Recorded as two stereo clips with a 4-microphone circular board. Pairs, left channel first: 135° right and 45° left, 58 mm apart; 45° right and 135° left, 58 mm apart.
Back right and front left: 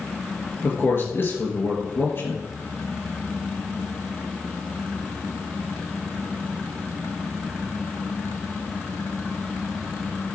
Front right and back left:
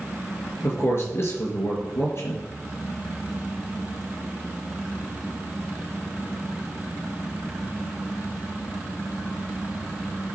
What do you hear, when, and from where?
0.6 s a man speaking: 85° right, 4 m